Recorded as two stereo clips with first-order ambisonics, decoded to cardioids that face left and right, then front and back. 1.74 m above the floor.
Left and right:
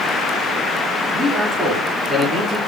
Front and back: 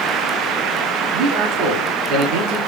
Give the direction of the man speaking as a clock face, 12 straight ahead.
6 o'clock.